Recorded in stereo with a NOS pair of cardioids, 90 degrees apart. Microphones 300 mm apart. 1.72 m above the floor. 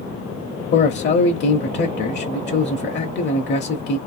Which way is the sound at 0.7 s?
35° left.